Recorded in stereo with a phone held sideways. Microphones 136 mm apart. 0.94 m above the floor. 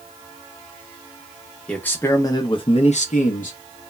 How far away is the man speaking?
About 0.8 m.